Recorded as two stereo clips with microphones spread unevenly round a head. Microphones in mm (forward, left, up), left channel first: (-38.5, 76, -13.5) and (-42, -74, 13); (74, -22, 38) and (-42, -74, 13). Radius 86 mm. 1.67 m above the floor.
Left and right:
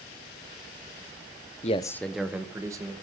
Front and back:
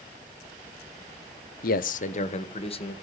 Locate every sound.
1.6 s a man speaking: 35° left, 0.8 m; by 2.9 s 20° right, 2.5 m